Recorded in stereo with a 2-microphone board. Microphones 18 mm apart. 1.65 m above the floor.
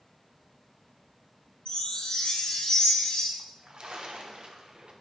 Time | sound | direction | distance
1.6 | a chime | 75° left (ahead or behind) | 2.5 m
3.4 | a splash | 50° right (ahead or behind) | 1.0 m